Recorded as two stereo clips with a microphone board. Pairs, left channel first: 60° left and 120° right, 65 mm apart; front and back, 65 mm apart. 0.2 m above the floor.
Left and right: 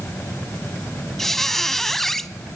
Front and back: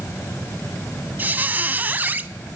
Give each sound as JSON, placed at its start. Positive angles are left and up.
{"t": 1.2, "sound": "a squeak", "azimuth_deg": 140, "distance_m": 0.6}